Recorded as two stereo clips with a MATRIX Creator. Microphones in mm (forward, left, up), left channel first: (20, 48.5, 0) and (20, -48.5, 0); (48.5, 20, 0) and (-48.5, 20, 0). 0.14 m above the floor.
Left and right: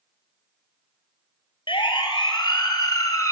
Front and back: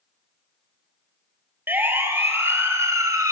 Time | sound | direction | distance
1.7 | a siren | 110° left | 2.5 m